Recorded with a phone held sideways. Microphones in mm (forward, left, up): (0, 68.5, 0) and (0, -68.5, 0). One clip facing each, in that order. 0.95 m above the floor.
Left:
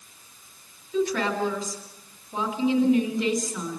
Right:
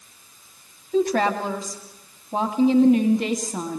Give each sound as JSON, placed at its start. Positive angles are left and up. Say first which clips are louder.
{"t": 0.9, "sound": "a woman speaking", "louder": "right 4 dB", "side_deg": -55, "distance_m": 2.5}